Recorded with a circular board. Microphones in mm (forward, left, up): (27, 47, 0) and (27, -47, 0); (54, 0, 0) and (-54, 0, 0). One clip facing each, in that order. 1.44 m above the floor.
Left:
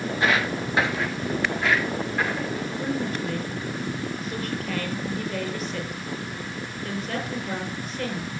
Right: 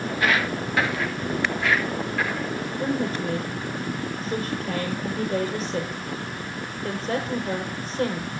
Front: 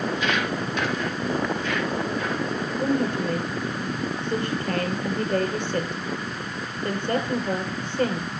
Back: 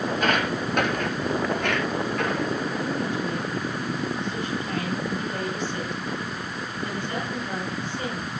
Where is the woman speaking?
30° right, 6 m.